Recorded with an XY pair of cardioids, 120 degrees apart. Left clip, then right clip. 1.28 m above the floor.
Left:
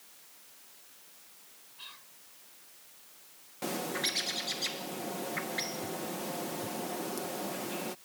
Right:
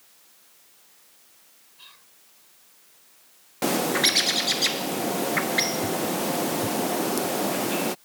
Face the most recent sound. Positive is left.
turn(degrees=-60)